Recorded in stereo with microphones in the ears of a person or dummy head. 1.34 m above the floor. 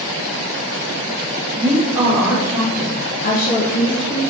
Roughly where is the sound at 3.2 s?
Left.